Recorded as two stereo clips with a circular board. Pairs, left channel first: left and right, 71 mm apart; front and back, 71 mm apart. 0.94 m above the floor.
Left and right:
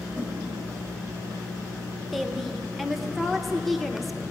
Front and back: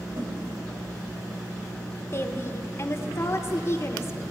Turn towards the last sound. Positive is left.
turn(degrees=0)